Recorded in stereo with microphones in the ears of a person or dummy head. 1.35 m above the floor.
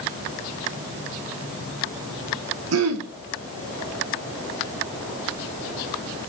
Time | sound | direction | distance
2.7 | throat clearing | 75° right (ahead or behind) | 1.5 m